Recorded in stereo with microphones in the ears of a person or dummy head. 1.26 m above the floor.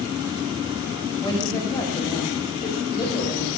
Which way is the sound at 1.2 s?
20° left (ahead or behind).